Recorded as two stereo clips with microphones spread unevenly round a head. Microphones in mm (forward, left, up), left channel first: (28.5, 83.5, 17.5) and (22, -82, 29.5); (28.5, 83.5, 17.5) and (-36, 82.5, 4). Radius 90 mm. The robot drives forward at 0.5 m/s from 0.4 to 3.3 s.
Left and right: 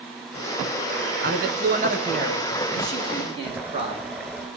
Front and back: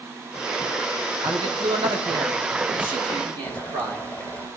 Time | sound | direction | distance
1.2 | a man speaking | 130° right | 1.1 m
3.4 | boiling | 25° right | 1.7 m